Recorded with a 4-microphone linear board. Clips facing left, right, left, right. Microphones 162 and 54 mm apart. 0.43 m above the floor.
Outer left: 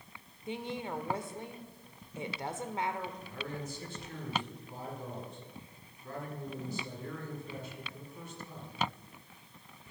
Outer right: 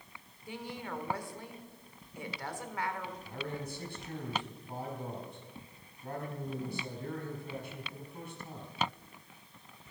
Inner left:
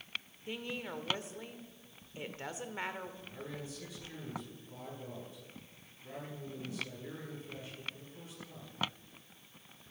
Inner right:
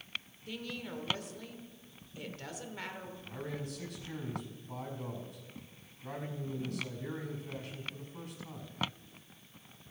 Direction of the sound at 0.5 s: 25° left (ahead or behind).